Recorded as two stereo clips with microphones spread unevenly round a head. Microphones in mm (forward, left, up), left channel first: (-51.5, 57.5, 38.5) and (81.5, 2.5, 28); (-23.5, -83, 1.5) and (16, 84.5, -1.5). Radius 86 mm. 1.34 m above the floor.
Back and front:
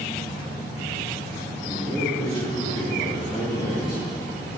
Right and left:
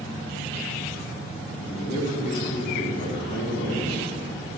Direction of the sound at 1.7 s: 135° right.